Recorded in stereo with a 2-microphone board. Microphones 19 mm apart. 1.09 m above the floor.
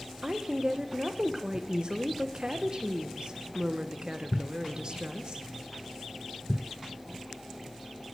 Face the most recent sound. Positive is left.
turn(degrees=-50)  # may be behind; listen again after turning